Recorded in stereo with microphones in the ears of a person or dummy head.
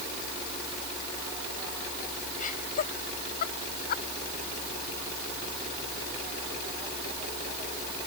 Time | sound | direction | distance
2.4 | laughter | 35° left (ahead or behind) | ?